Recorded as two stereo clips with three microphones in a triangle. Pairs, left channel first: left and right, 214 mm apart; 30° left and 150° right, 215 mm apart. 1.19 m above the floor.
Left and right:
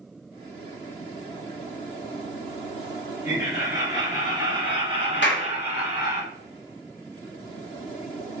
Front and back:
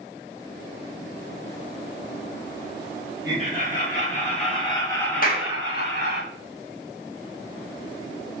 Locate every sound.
3.2 s laughter: 15° right, 2.0 m; by 6.2 s 150° right, 0.9 m
5.2 s a clap: 70° left, 0.7 m